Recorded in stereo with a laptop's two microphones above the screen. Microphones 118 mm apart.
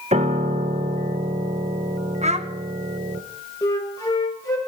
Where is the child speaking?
65° right (ahead or behind), 0.8 m.